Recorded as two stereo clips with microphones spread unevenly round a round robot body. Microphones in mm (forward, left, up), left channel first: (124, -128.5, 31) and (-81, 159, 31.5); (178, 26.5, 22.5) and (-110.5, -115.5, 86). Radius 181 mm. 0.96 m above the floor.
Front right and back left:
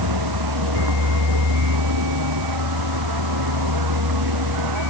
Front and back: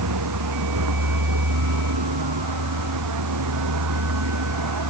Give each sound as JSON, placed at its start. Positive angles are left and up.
{"t": 0.0, "sound": "a vehicle", "azimuth_deg": 160}